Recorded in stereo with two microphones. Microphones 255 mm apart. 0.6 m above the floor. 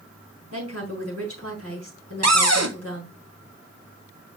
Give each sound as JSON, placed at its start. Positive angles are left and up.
{"t": 0.5, "sound": "a woman speaking", "side_deg": -75, "distance_m": 5.0}
{"t": 2.2, "sound": "a cupboard door", "side_deg": -85, "distance_m": 1.3}